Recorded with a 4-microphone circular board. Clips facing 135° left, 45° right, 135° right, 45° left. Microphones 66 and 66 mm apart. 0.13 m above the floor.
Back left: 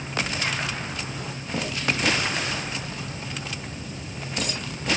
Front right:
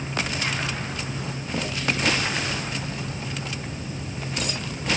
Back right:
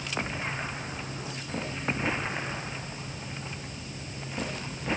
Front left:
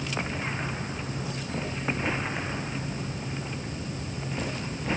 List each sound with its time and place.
Only background noise.